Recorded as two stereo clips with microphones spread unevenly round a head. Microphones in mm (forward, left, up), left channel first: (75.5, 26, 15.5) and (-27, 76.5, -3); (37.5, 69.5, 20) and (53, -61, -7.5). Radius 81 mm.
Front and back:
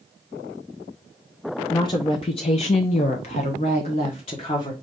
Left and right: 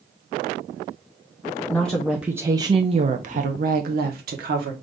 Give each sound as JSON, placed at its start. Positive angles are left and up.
{"t": 1.7, "sound": "a woman speaking", "azimuth_deg": 25, "distance_m": 0.8}